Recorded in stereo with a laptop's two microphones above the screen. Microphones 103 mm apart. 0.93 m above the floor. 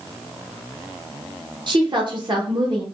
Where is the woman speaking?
45° right (ahead or behind), 0.8 m.